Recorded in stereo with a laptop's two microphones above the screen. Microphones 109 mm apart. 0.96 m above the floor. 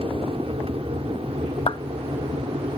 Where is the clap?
55° left (ahead or behind).